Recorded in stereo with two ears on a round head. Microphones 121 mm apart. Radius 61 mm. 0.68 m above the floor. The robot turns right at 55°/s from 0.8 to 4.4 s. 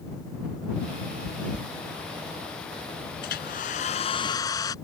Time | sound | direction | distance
1.2 | chewing | centre (ahead or behind) | ?
3.2 | a hair dryer | 85° left | ?